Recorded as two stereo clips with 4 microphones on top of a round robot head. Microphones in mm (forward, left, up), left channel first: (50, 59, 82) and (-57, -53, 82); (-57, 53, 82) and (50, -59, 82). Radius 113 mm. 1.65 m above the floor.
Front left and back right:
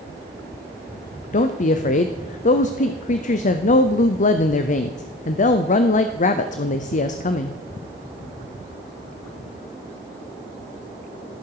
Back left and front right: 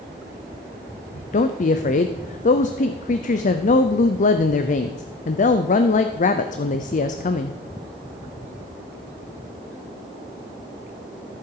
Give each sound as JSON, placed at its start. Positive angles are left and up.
{"t": 1.3, "sound": "a woman speaking", "azimuth_deg": 90, "distance_m": 0.6}